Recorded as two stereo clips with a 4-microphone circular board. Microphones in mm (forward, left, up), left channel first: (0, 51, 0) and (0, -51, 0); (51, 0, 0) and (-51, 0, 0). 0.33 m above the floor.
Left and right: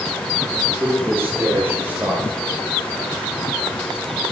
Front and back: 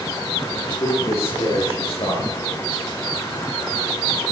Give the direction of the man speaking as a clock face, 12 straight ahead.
1 o'clock.